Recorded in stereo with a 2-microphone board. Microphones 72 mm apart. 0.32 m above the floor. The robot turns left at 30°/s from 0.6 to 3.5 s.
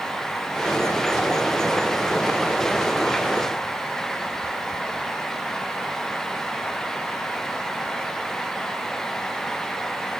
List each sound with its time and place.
Only background noise.